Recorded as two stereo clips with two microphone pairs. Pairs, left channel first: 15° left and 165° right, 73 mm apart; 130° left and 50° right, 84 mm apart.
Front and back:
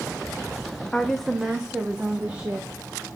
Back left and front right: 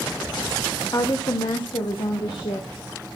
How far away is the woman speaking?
About 0.8 m.